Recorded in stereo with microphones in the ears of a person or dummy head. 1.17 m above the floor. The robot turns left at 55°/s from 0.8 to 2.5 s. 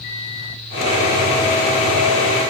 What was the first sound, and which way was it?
Only background noise.